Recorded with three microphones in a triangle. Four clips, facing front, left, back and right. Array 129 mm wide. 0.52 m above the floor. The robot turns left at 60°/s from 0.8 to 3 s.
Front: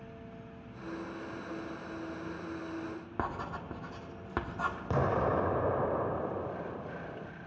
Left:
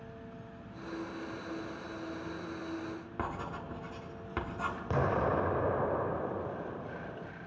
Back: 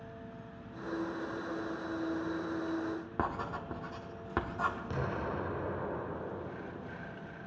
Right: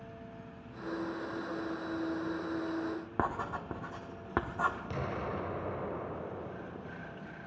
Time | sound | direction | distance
3.2 | writing | 95° right | 1.2 m
4.9 | an explosion | 25° left | 0.5 m